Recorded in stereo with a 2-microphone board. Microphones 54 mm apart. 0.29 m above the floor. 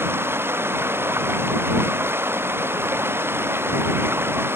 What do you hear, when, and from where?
0.0 s running water: 45° right (ahead or behind)